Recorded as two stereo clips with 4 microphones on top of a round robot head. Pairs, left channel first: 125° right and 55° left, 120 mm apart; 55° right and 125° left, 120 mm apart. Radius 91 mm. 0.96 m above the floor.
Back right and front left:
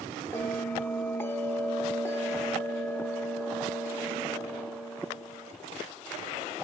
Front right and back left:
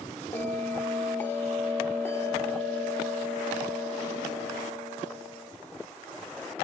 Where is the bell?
90° right, 0.7 m.